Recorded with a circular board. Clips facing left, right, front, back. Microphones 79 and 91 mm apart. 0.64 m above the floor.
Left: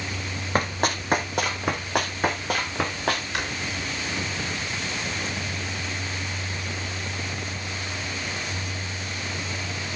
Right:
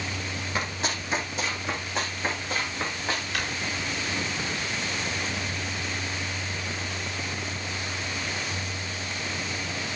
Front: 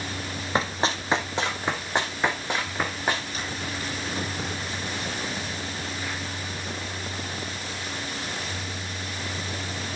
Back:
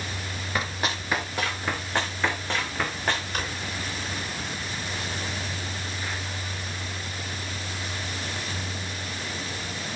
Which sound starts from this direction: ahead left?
Running footsteps, at 0.6 s.